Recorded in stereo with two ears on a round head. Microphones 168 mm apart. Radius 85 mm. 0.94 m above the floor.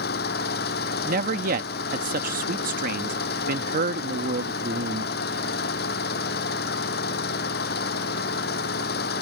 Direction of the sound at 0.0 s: 55° left (ahead or behind).